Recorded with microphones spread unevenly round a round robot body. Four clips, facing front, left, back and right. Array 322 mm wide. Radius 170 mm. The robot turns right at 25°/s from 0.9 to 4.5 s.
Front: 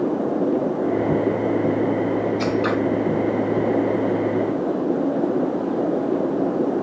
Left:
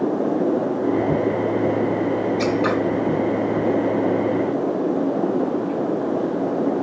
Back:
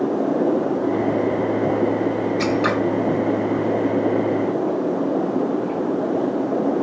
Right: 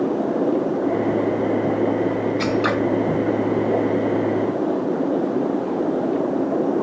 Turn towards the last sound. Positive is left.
turn(degrees=-85)